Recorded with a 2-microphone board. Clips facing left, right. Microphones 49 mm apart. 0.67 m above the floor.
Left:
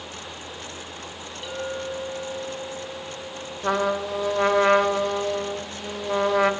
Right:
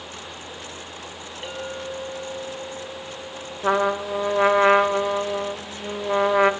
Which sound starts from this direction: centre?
A trumpet, at 3.6 s.